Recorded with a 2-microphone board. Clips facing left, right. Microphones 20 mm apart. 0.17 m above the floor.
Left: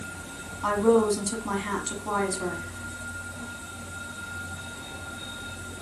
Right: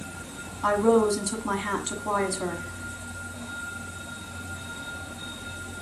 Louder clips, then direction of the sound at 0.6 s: Right 1 dB; 10° right (ahead or behind).